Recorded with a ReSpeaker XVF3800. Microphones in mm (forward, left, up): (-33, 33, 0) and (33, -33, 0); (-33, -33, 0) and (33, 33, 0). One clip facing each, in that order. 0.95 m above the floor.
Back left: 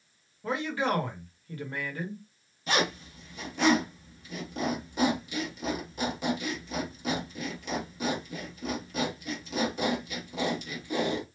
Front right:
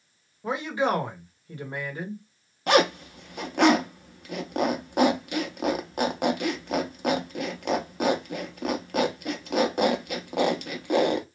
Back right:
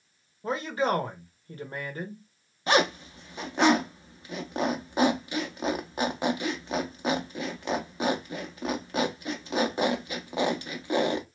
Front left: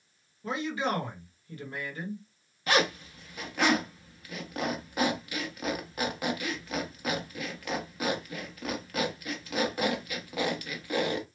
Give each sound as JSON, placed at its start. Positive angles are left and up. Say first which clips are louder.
{"t": 0.4, "sound": "a man speaking", "louder": "front right 3 dB, back right 3 dB", "azimuth_deg": -110, "distance_m": 1.2}
{"t": 2.7, "sound": "a zipper", "louder": "front right 8 dB, back right 3 dB", "azimuth_deg": -70, "distance_m": 0.7}